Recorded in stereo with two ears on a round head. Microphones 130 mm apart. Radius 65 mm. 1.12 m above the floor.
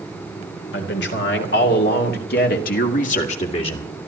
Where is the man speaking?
85° left, 3.5 m; by 3.9 s 30° left (ahead or behind), 1.8 m.